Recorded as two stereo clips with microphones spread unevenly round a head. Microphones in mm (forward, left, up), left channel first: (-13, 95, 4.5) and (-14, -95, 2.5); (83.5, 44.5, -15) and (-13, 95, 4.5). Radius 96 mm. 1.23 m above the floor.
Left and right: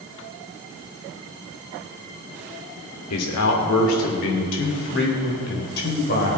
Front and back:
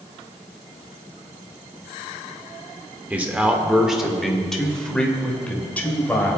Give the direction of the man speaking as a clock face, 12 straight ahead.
9 o'clock.